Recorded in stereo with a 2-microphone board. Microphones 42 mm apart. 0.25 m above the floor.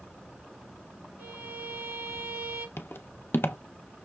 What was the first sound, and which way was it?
A violin, 70° right (ahead or behind).